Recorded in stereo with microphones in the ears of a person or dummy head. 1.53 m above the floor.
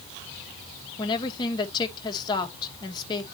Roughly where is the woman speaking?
Left.